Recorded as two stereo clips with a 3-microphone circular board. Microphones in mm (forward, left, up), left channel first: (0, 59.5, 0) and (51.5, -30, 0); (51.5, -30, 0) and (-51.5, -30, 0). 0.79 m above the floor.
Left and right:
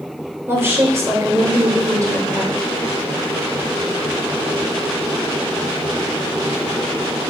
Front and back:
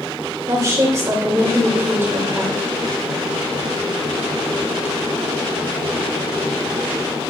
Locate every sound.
0.5 s a woman speaking: 125° right, 3 m; by 2.7 s 110° right, 4 m